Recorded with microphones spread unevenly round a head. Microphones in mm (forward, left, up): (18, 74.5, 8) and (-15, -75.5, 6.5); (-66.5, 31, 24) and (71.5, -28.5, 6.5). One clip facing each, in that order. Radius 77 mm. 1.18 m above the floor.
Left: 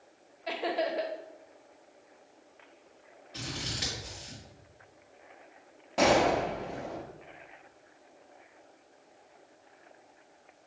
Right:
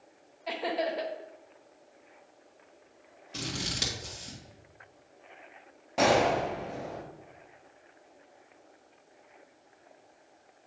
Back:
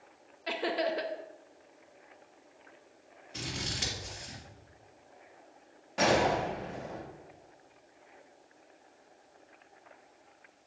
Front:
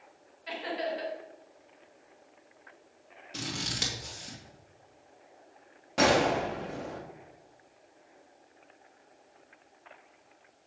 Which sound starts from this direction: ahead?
A gunshot, at 6.0 s.